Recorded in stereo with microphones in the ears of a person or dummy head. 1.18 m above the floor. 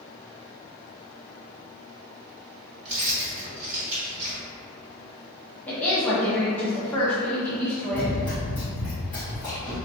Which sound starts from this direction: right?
Keys jangling, at 2.9 s.